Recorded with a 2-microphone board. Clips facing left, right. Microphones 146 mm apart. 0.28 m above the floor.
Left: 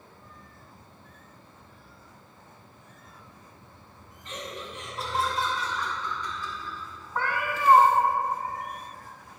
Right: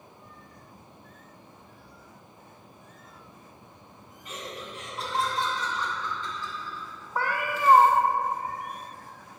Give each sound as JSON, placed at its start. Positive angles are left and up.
{"t": 4.2, "sound": "laughter", "side_deg": -10, "distance_m": 2.0}
{"t": 7.2, "sound": "a cat meowing", "side_deg": -10, "distance_m": 1.3}